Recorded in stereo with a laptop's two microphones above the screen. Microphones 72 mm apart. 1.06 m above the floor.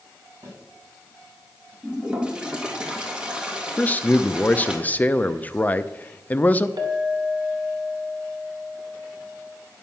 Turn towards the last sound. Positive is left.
turn(degrees=-70)  # may be behind; listen again after turning